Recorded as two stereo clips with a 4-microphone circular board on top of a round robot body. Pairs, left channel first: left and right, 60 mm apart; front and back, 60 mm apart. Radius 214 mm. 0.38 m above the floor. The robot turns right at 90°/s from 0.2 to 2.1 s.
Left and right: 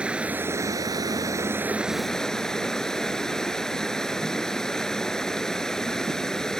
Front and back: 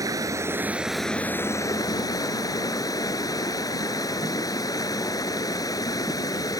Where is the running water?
160° right; by 6.6 s 10° left.